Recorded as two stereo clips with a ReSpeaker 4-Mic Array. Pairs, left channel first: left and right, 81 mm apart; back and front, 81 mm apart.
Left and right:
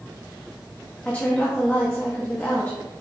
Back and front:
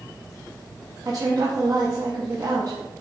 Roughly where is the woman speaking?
Ahead.